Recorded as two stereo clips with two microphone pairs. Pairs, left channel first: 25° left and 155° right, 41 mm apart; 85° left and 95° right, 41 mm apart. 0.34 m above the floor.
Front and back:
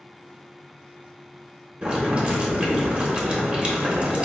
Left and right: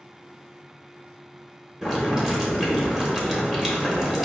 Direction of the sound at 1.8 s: 165° right.